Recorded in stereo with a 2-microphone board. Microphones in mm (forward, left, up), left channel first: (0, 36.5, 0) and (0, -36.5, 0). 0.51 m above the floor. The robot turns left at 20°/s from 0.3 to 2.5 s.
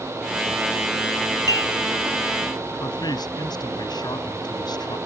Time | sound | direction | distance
1.5 | dishes clattering | 50° right (ahead or behind) | ?
2.8 | a man speaking | 75° left (ahead or behind) | ?